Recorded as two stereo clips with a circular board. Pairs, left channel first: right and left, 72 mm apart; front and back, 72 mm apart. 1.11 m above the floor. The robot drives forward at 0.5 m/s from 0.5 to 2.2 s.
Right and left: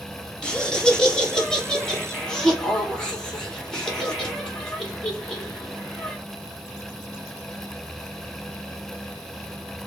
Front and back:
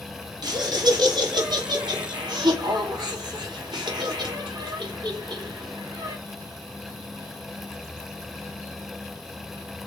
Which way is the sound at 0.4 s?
170° right.